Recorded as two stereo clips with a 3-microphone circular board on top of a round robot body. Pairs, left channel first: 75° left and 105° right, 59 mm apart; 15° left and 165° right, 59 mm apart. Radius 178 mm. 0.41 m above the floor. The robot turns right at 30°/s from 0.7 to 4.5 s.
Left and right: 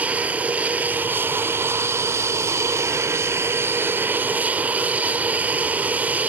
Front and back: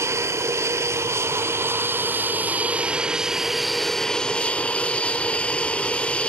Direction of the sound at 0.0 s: 165° right.